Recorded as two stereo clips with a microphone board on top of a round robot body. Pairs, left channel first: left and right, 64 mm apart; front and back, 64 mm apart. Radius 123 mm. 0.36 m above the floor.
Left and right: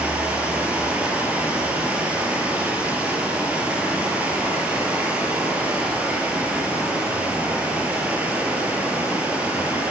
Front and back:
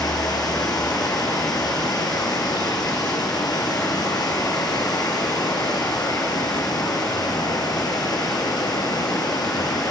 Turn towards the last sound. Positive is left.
turn(degrees=-20)